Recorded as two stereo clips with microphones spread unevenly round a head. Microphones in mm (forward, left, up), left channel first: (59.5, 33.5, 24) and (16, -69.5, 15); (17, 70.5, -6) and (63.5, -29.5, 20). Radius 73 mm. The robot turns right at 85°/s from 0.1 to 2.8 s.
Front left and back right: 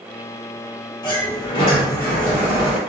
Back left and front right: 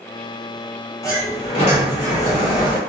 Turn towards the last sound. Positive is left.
turn(degrees=-165)